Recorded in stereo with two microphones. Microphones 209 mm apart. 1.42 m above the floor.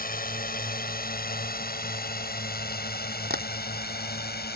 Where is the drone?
45° left (ahead or behind); by 4.6 s 50° left (ahead or behind).